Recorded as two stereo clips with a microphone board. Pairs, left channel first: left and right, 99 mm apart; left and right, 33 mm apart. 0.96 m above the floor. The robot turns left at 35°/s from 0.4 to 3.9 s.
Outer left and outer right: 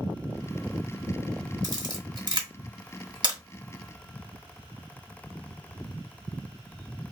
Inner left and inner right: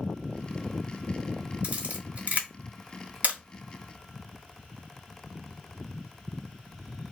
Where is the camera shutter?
40° right (ahead or behind), 0.9 m; by 3.4 s 45° right (ahead or behind), 0.9 m.